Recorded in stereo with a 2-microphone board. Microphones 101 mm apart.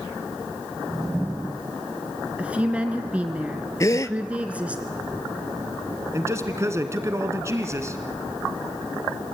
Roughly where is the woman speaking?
Centre.